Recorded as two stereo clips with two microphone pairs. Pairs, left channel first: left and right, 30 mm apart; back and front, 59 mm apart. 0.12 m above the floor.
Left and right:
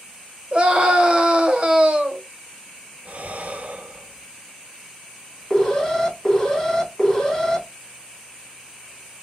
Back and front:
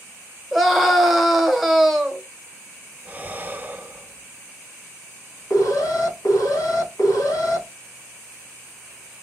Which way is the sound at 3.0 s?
60° right.